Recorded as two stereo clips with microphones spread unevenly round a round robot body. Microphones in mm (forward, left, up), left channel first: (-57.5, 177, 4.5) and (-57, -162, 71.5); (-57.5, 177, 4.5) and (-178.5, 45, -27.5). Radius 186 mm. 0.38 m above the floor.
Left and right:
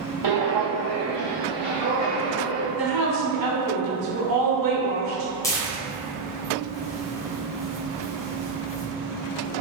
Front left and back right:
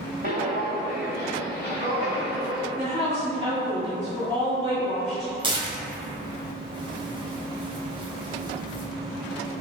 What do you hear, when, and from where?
0.2 s footsteps: 90° right, 0.6 m; by 2.7 s 15° right, 1.6 m
2.8 s a woman speaking: 80° right, 1.2 m
5.4 s tearing paper: 165° left, 1.0 m